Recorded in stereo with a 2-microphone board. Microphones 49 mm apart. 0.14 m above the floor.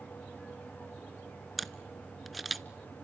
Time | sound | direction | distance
1.6 | a camera shutter | centre (ahead or behind) | 0.6 m